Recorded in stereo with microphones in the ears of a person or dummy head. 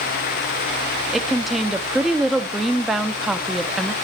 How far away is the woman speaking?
About 1.1 m.